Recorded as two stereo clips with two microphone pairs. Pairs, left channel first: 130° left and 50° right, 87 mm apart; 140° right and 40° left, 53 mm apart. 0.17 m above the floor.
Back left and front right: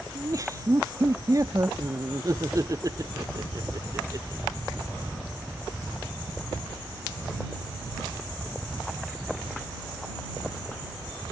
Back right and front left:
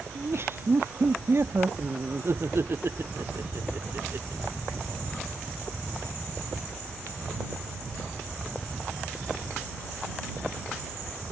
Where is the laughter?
Straight ahead.